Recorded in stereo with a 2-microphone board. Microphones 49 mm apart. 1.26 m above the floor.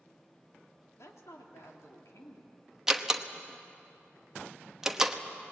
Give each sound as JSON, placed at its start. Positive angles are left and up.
{"t": 1.0, "sound": "a woman speaking", "side_deg": 80, "distance_m": 3.0}
{"t": 2.9, "sound": "a door slam", "side_deg": -15, "distance_m": 1.1}